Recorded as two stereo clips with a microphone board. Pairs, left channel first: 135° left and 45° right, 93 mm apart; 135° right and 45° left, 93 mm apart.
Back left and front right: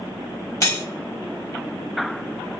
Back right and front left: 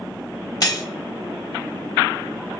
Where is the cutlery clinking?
175° right, 0.9 m.